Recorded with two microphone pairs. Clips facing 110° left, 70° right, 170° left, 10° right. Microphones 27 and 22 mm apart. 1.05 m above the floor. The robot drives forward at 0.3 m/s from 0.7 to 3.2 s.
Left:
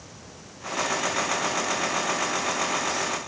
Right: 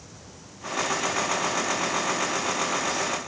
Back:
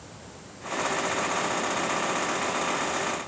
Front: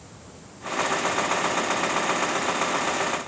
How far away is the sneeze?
I don't hear a sneeze.